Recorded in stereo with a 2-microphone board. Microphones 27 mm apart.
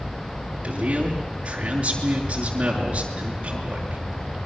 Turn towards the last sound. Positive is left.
turn(degrees=-40)  # may be behind; listen again after turning